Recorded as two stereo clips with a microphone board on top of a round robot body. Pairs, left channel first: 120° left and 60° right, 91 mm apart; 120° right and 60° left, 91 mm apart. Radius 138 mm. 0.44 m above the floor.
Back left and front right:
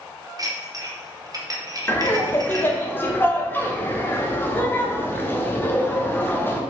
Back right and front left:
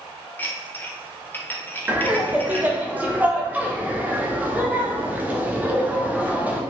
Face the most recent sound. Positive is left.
turn(degrees=105)